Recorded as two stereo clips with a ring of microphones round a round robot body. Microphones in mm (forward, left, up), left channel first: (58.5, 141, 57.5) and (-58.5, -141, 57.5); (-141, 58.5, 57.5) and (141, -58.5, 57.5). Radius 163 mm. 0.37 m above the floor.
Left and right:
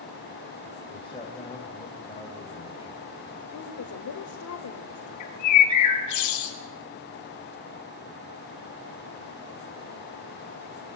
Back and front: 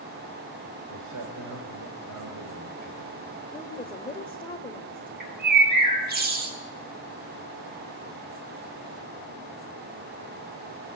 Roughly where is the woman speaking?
Left.